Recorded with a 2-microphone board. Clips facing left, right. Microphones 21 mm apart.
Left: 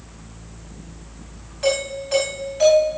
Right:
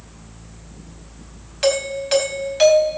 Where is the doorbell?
75° right (ahead or behind), 4.5 m.